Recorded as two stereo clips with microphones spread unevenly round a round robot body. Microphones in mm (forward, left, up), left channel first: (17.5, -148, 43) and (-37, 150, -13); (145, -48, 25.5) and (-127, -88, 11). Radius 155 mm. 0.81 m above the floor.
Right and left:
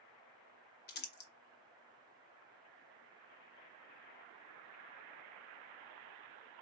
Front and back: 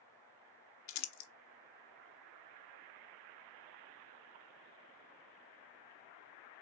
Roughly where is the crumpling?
Ahead.